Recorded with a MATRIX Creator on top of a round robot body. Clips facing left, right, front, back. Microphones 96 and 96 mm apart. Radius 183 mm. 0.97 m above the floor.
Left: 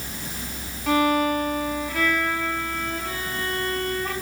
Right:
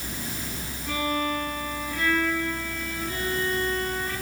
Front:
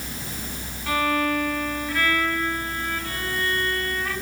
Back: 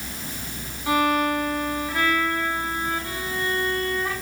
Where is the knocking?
No knocking in this recording.